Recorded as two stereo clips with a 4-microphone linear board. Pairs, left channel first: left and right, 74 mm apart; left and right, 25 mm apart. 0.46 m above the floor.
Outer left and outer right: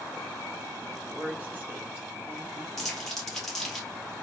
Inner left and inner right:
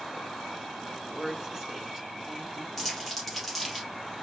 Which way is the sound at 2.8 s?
5° left (ahead or behind).